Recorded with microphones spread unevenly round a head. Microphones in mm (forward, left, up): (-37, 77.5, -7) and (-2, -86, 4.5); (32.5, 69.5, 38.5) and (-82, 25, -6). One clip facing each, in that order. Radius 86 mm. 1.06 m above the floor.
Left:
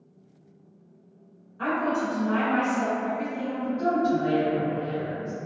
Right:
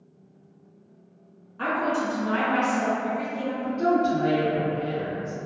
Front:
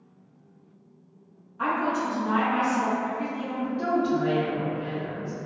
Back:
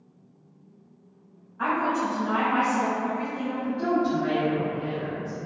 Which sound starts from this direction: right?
A woman speaking, at 3.6 s.